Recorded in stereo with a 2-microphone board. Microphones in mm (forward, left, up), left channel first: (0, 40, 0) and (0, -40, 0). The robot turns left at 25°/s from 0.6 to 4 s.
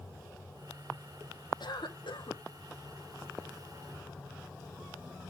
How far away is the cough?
About 1.6 m.